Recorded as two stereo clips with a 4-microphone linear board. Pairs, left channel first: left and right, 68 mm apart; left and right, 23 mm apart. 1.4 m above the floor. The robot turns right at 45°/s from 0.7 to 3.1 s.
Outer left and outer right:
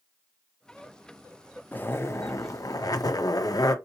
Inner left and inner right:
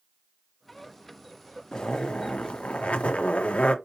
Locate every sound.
1.7 s a zipper: 30° left, 0.6 m; by 3.8 s 90° left, 0.6 m